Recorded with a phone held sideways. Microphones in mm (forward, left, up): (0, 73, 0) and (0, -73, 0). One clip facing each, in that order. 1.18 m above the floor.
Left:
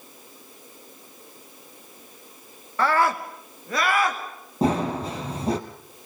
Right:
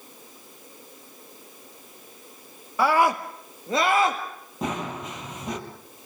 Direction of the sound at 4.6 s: 35° left (ahead or behind).